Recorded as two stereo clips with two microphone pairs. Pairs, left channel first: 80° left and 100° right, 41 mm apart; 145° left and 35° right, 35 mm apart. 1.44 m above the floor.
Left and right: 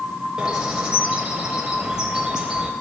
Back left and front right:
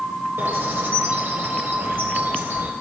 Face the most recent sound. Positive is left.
turn(degrees=-25)